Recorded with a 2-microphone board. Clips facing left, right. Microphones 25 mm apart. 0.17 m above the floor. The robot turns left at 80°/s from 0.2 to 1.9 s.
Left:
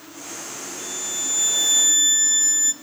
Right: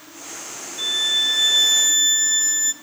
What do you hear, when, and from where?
0.8 s a violin: 75° right, 1.0 m; by 2.7 s 165° right, 1.0 m